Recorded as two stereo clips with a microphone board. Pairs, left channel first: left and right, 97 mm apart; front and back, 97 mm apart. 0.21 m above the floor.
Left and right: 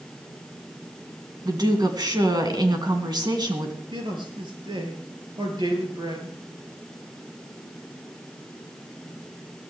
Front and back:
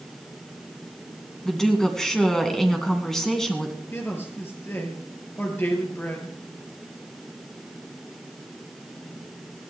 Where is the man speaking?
65° right, 4 m.